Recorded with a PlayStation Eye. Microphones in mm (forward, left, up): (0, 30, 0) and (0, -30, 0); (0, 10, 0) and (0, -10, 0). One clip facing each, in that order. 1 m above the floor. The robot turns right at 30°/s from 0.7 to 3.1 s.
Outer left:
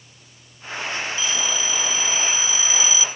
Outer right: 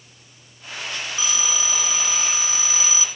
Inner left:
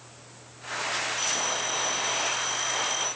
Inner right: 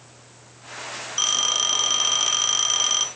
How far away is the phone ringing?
About 0.9 m.